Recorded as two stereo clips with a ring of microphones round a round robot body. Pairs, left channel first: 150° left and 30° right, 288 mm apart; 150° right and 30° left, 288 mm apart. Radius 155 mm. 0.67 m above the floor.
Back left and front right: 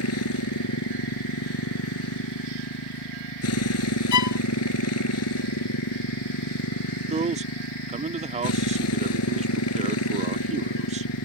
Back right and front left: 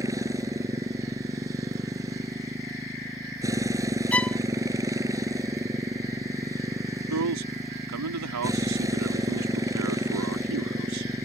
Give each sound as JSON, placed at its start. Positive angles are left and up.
{"t": 0.0, "sound": "a motorcycle", "azimuth_deg": 110}
{"t": 4.1, "sound": "a violin", "azimuth_deg": 125}
{"t": 7.1, "sound": "a man speaking", "azimuth_deg": 35}